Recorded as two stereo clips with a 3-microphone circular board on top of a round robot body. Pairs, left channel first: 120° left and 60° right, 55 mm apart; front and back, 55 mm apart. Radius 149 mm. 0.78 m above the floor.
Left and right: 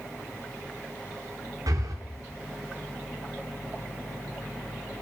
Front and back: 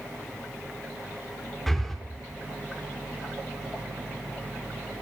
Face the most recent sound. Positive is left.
turn(degrees=-85)